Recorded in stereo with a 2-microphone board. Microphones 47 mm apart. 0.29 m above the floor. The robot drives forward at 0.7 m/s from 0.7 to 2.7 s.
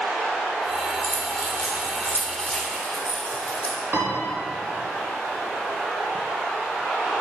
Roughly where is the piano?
Right.